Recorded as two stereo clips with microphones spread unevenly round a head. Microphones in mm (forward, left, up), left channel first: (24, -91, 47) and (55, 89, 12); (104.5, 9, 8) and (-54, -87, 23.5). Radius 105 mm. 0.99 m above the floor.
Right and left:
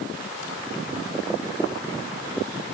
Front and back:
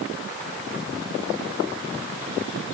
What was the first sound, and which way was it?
Only background noise.